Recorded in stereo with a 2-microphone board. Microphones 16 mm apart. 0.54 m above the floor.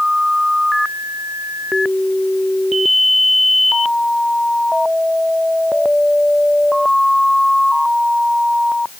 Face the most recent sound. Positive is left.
No sound to turn to.